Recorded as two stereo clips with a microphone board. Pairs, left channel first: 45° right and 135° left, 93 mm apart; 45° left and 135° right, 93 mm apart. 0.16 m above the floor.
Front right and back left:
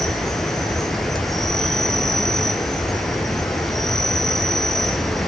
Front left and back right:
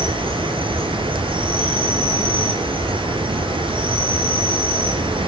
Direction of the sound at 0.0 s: 130° right.